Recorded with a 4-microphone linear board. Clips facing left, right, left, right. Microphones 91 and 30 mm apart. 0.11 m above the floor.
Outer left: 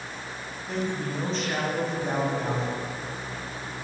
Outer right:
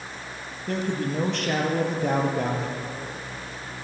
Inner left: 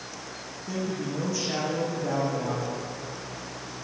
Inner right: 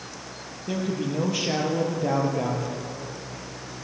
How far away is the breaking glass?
I don't hear breaking glass.